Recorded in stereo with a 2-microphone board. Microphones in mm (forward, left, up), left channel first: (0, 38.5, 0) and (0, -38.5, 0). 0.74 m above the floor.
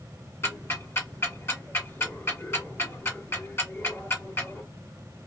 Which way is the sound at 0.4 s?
30° left (ahead or behind).